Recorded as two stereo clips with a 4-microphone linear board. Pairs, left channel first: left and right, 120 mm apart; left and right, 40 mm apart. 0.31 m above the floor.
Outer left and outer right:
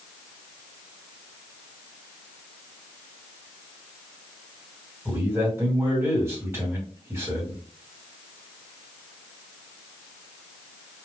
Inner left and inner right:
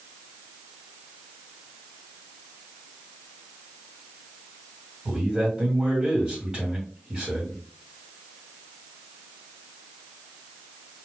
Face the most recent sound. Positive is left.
turn(degrees=-15)  # may be behind; listen again after turning